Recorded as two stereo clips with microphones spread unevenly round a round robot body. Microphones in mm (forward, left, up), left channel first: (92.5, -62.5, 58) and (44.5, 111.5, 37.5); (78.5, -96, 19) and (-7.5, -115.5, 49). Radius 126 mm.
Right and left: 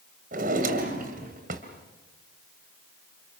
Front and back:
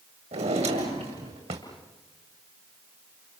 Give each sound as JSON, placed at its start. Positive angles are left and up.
{"t": 0.3, "sound": "a drawer", "azimuth_deg": 160, "distance_m": 1.9}